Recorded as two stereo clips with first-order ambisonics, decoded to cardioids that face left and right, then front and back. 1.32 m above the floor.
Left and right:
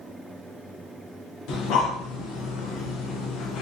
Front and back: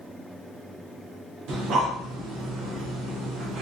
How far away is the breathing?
About 0.6 m.